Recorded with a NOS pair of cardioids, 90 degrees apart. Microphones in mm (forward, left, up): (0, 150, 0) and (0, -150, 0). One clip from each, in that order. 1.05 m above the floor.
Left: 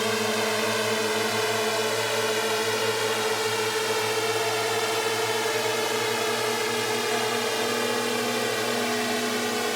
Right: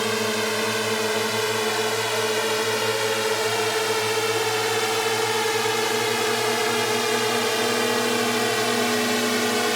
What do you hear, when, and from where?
0.0 s a drone: 10° right; by 9.8 s 35° right